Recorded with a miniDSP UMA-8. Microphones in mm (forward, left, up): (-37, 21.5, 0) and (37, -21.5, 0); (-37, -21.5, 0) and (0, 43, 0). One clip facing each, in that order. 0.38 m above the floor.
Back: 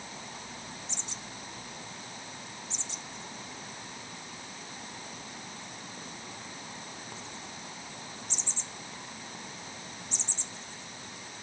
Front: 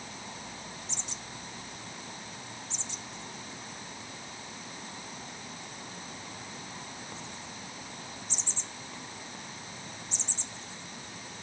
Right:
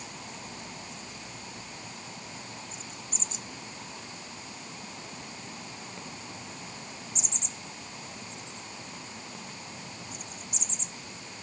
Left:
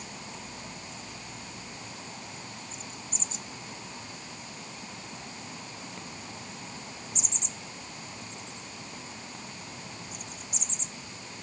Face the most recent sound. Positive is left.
No sound to turn to.